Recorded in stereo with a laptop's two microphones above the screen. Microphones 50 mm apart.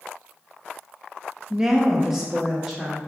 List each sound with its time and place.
1.5 s a woman speaking: 15° right (ahead or behind), 0.5 m; by 3.0 s 5° right (ahead or behind), 1.8 m